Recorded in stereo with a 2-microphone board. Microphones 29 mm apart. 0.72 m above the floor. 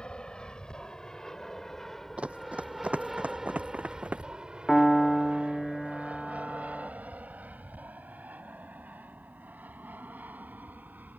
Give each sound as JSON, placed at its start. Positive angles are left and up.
{"t": 0.0, "sound": "an aircraft", "side_deg": 35}
{"t": 2.2, "sound": "running footsteps", "side_deg": -45}
{"t": 4.7, "sound": "a piano", "side_deg": 10}